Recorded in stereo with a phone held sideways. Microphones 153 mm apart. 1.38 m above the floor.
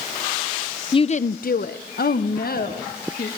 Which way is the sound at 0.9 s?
35° left (ahead or behind).